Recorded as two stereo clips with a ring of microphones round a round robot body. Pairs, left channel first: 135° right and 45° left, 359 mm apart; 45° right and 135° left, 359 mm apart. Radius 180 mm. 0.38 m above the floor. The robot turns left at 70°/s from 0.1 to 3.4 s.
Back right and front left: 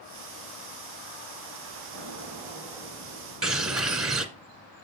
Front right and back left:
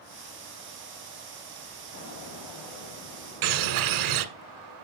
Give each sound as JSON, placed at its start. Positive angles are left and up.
{"t": 1.9, "sound": "an explosion", "azimuth_deg": 10, "distance_m": 3.0}
{"t": 3.4, "sound": "a bird", "azimuth_deg": 135, "distance_m": 1.4}